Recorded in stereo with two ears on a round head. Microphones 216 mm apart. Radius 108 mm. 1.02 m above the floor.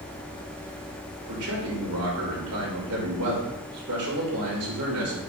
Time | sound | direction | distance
1.3 | a man speaking | 75° right (ahead or behind) | 3.5 m